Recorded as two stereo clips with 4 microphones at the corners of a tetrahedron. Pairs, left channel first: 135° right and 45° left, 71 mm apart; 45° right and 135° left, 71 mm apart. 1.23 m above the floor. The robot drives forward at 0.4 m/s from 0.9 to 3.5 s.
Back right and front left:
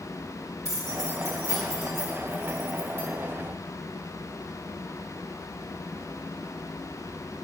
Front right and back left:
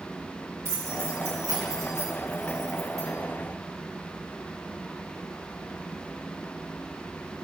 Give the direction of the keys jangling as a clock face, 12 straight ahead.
9 o'clock.